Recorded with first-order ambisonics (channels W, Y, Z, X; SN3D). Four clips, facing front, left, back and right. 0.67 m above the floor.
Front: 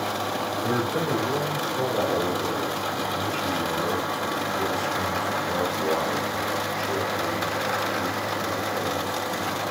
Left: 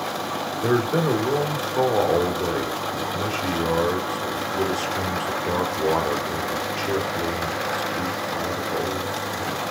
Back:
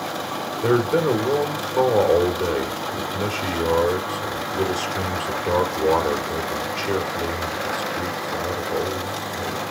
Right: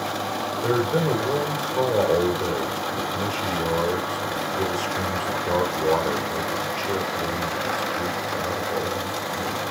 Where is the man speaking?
145° left, 2 m.